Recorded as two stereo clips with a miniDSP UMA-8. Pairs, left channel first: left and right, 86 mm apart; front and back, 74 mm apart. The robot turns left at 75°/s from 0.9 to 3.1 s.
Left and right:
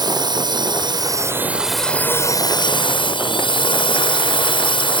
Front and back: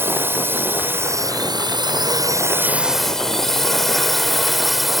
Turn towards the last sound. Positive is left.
turn(degrees=90)